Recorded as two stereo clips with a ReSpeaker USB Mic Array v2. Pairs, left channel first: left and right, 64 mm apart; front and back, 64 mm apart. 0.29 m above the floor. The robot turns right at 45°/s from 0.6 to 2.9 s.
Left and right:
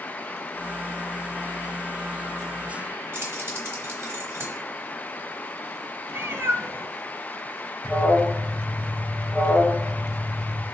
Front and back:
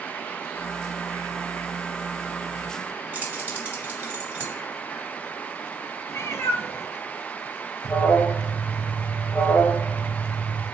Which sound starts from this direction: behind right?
Keys jangling, at 3.1 s.